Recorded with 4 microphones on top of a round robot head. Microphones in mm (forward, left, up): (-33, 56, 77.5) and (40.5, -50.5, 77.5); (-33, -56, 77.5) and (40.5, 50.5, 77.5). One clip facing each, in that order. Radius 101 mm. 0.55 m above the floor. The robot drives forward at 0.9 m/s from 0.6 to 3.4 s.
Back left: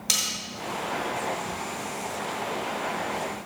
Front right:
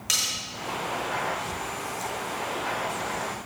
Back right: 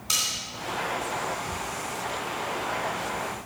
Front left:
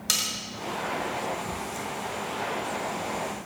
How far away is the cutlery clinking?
About 2 m.